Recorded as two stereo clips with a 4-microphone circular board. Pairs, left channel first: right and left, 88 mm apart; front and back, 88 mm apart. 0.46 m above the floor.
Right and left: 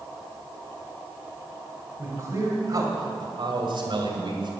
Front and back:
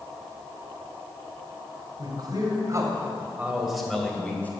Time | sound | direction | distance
2.0 | a man speaking | 150° left | 2.5 m